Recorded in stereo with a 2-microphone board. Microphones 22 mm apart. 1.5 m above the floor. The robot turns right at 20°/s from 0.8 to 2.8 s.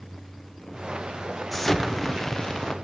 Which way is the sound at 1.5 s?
5° left (ahead or behind).